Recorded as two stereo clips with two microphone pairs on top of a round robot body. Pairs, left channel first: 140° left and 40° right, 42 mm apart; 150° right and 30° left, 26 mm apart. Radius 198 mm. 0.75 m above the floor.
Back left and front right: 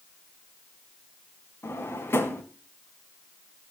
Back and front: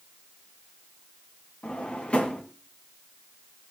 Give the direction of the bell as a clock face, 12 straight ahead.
No bell in this recording.